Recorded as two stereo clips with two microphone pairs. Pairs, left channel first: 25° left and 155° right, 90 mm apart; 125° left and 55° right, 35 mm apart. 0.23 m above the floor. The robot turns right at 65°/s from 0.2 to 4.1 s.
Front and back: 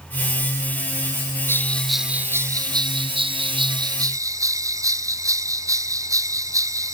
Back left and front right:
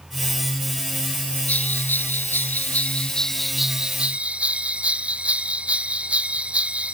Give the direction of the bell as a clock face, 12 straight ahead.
9 o'clock.